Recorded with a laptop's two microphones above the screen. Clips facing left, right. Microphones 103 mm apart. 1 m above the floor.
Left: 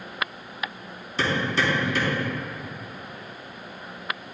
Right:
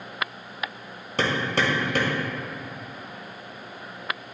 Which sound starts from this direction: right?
Hammering, at 1.2 s.